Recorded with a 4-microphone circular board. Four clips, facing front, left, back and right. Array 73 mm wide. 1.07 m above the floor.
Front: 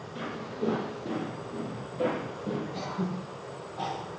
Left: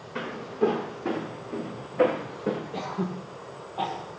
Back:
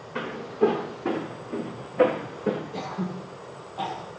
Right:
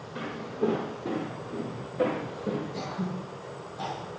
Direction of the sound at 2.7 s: 105° left.